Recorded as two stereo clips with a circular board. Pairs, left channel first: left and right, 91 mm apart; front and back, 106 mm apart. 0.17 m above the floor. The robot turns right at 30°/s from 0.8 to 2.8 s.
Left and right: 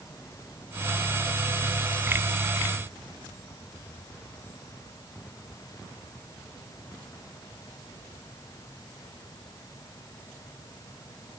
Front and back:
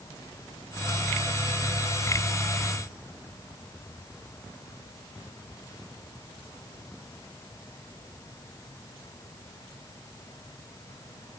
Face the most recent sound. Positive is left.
No sound to turn to.